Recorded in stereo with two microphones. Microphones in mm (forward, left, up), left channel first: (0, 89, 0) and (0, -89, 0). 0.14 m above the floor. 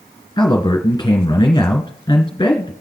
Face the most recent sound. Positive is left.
turn(degrees=20)  # may be behind; listen again after turning